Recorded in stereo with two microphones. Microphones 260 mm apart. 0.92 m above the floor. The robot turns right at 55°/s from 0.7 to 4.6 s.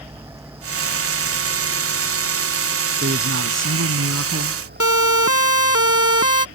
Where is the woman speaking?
135° right; by 4.7 s 45° right.